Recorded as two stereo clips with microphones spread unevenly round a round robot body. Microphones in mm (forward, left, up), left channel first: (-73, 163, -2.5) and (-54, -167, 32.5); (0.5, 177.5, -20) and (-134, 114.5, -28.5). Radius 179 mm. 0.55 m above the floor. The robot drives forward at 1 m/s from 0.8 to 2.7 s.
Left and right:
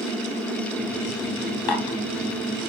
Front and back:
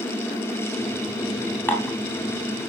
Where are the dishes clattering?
100° left, 2.5 m; by 2.0 s 105° left, 3 m.